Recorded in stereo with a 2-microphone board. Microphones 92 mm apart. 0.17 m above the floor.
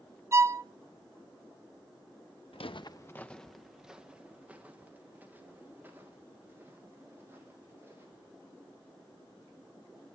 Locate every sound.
0.3 s a violin: 30° right (ahead or behind), 0.6 m
2.5 s footsteps: 80° left, 0.8 m; by 8.3 s 25° right (ahead or behind), 7.5 m